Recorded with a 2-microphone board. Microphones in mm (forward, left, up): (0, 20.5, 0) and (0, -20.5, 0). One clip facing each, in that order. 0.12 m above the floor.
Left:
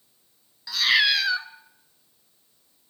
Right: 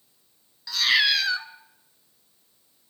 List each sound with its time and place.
0.7 s a cat meowing: 5° left (ahead or behind), 0.6 m